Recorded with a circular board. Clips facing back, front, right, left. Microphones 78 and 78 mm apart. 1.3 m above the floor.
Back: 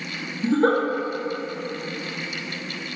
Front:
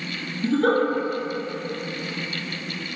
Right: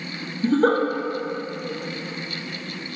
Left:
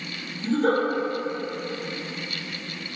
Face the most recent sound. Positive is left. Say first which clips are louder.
# back 1 dB, right 3 dB
turn(degrees=-120)